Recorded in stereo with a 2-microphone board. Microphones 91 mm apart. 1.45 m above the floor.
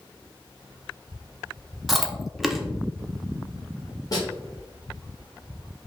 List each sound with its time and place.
1.9 s chewing: centre (ahead or behind), 0.6 m
4.1 s a snare drum: 45° left (ahead or behind), 1.4 m